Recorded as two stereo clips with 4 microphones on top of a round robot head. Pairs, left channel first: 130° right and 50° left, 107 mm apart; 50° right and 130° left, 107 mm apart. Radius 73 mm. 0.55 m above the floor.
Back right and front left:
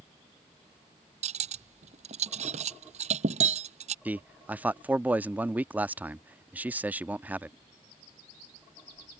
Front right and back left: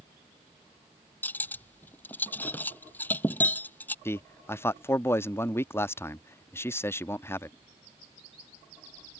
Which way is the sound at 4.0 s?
10° right.